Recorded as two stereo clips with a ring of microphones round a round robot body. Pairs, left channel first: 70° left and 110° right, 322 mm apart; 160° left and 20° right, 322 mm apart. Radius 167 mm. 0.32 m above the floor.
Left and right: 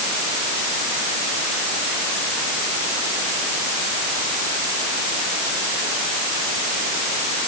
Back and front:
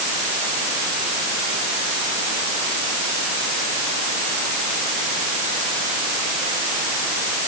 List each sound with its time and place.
Only background noise.